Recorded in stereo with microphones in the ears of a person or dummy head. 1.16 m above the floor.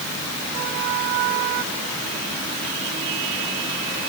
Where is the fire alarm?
No fire alarm in this recording.